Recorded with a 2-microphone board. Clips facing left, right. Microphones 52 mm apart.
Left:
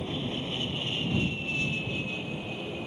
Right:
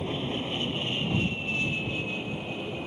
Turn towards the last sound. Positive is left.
turn(degrees=-10)  # may be behind; listen again after turning